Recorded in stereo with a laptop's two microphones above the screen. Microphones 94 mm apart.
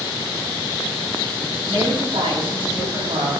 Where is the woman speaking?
80° right, 7 m.